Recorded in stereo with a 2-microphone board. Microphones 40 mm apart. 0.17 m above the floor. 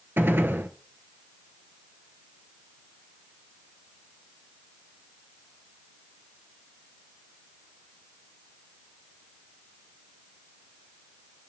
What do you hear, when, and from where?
0.2 s a gunshot: 70° right (ahead or behind), 0.8 m